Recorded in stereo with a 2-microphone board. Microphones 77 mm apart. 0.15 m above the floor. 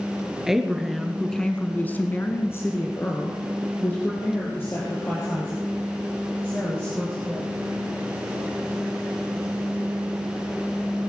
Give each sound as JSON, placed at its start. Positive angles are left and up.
{"t": 0.5, "sound": "a woman speaking", "side_deg": -5, "distance_m": 2.0}